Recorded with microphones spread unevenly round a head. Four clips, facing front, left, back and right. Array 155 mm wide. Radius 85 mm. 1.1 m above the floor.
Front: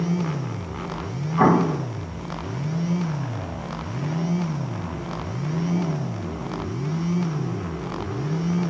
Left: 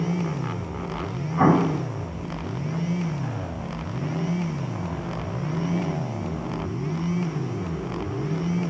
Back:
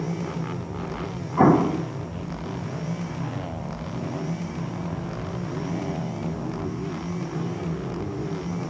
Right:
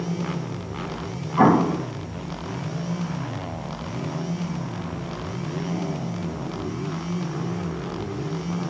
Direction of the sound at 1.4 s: 135° right.